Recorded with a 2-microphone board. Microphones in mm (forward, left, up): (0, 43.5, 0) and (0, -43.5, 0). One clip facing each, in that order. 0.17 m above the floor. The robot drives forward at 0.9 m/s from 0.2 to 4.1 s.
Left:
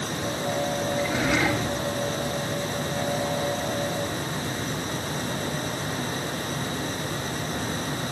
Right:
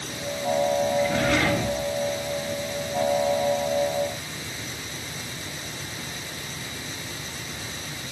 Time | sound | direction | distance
1.0 | a drawer | 10° left (ahead or behind) | 9 m